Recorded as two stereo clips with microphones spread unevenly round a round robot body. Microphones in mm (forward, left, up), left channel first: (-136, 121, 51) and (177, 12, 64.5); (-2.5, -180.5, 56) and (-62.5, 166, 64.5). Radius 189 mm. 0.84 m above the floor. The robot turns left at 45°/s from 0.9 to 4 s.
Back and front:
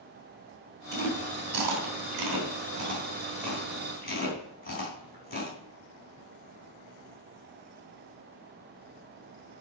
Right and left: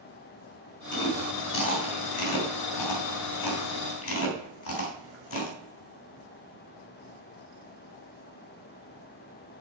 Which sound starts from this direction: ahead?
Chewing, at 0.9 s.